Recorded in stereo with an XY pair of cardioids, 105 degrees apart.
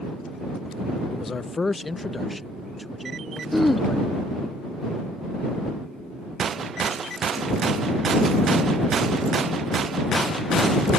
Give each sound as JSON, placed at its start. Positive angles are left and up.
{"t": 1.1, "sound": "a man speaking", "azimuth_deg": 45}
{"t": 3.5, "sound": "throat clearing", "azimuth_deg": 5}